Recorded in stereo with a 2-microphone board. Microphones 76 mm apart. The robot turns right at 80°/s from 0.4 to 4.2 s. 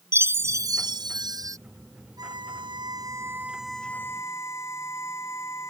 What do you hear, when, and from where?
0.1 s a chime: 145° right; by 1.6 s 50° right
2.2 s a violin: 120° right; by 5.7 s 40° left